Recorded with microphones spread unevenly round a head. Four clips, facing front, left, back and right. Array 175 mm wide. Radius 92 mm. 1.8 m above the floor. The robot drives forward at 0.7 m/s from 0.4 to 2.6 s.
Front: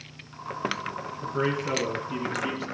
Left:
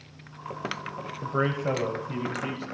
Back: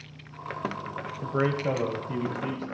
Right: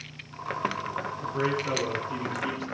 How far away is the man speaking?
About 1.0 m.